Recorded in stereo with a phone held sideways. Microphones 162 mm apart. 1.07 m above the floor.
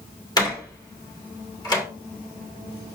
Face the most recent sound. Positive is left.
turn(degrees=25)  # may be behind; listen again after turning